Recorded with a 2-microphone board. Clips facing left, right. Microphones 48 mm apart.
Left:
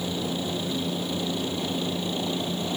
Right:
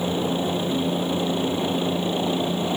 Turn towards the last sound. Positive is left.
turn(degrees=-20)  # may be behind; listen again after turning